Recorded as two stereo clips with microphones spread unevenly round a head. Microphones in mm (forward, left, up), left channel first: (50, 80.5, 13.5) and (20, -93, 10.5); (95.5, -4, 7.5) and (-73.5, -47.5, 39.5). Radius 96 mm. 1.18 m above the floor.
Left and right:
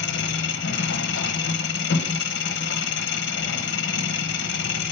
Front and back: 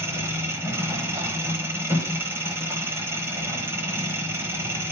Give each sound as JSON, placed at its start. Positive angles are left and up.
{"t": 0.0, "sound": "an engine running", "azimuth_deg": 120, "distance_m": 0.7}